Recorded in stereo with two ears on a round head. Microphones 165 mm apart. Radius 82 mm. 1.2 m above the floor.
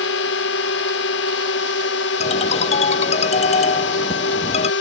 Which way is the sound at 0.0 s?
70° left (ahead or behind).